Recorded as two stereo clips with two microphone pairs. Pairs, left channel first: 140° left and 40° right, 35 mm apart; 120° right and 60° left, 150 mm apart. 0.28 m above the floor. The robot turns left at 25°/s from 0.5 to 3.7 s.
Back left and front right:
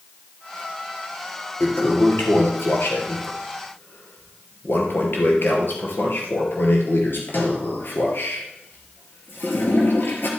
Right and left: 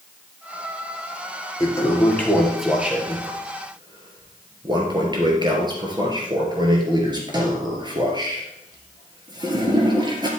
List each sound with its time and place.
1.6 s a toilet flushing: 175° left, 2.5 m; by 10.3 s 120° left, 2.5 m